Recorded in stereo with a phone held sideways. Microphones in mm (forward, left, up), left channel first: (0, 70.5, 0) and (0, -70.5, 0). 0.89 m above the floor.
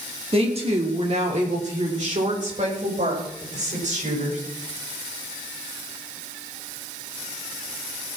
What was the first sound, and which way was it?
A woman speaking, 40° right (ahead or behind).